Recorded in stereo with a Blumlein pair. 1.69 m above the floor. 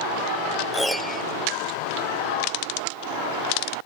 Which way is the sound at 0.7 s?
Straight ahead.